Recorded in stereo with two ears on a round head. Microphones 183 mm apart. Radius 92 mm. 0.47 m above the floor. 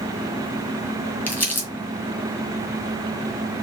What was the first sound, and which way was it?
Crumpling, 10° left (ahead or behind).